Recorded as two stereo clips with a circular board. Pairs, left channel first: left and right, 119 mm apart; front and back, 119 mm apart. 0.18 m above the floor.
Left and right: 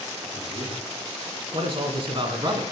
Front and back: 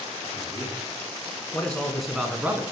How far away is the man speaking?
About 2.5 m.